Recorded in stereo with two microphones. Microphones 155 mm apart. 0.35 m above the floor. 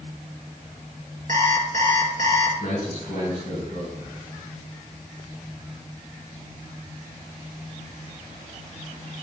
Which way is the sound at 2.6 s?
55° right (ahead or behind).